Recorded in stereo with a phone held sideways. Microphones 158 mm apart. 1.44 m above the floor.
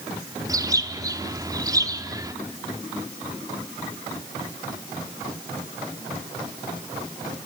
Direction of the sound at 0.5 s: 20° right (ahead or behind).